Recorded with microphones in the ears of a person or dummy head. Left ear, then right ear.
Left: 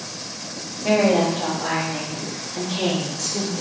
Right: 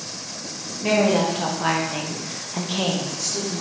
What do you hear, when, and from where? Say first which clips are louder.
0.8 s a woman speaking: left 1 dB; 65° right (ahead or behind), 1.4 m; by 3.6 s 5° left (ahead or behind), 1.0 m